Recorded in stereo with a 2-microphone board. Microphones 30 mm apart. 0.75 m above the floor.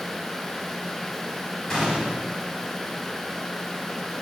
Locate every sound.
1.7 s a gunshot: 10° left (ahead or behind), 5 m